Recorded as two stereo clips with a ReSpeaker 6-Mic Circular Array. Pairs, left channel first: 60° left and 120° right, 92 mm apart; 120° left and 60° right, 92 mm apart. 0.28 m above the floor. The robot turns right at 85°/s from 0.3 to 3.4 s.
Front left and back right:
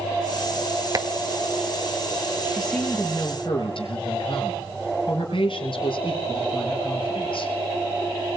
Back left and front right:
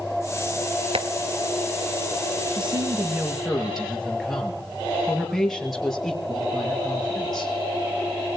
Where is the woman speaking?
45° right, 5.5 m; by 7.5 s 30° left, 5.5 m.